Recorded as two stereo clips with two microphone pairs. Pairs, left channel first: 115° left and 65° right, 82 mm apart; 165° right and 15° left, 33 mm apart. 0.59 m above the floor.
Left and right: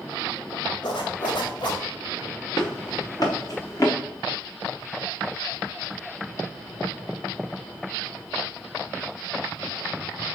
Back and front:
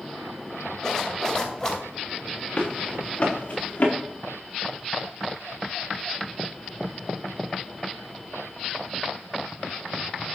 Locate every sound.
0.8 s a zipper: 125° left, 2.5 m
2.6 s running footsteps: 150° left, 3.5 m; by 3.9 s 160° left, 3 m